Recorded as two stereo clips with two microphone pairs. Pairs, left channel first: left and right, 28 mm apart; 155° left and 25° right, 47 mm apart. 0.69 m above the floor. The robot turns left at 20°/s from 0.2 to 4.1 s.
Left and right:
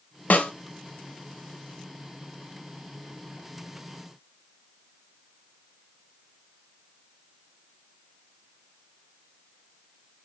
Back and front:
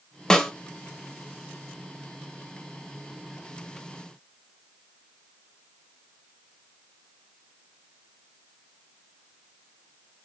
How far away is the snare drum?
About 0.7 m.